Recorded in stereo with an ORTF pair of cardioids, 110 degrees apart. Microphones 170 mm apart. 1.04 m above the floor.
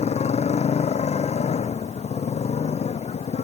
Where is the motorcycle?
40° left.